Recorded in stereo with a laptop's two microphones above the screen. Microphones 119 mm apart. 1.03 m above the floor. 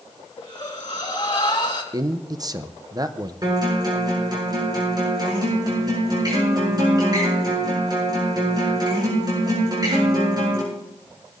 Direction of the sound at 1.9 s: 30° right (ahead or behind).